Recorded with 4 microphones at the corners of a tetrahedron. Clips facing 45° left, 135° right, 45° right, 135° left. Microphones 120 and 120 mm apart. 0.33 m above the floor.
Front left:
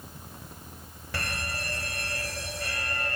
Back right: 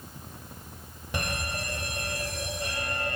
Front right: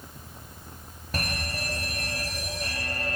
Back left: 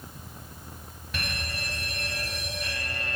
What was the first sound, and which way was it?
An alarm, 70° right.